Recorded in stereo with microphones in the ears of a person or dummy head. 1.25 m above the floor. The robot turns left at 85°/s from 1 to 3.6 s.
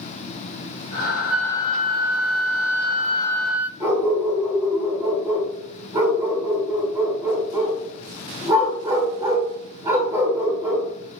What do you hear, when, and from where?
1.3 s a flute: 175° right, 0.5 m; by 3.7 s 10° right, 0.5 m
3.8 s a dog barking: 10° right (ahead or behind), 3.5 m